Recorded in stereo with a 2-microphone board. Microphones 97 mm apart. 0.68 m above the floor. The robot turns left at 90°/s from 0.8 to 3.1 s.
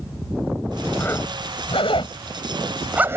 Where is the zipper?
15° left (ahead or behind); by 3.2 s 25° right (ahead or behind).